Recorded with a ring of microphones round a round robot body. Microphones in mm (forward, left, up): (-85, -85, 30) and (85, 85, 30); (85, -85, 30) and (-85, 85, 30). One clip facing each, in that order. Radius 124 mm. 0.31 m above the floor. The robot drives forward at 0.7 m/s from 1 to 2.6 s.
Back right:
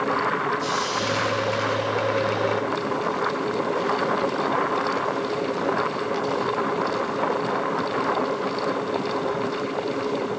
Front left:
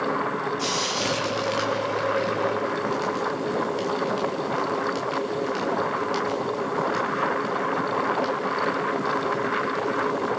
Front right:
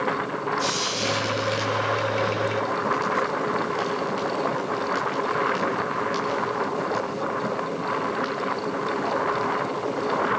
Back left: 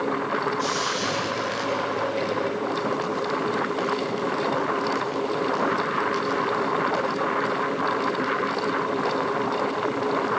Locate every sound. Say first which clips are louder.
0.6 s frying: back right 1 dB, back left 1 dB; 30° left, 8 m; by 10.3 s 35° left, 7 m